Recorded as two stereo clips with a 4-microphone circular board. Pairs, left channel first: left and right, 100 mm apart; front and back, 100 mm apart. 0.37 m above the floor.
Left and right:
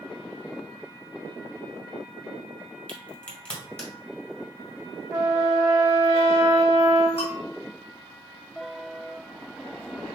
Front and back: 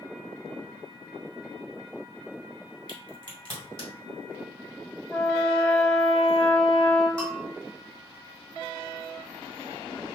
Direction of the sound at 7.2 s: 75° left.